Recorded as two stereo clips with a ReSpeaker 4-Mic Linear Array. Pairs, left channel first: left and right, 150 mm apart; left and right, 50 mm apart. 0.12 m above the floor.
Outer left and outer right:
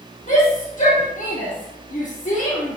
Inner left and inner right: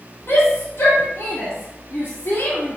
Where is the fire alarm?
No fire alarm in this recording.